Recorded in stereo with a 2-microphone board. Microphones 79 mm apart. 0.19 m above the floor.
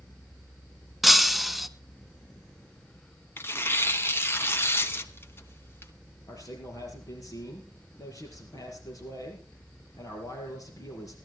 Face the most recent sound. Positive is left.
turn(degrees=50)  # may be behind; listen again after turning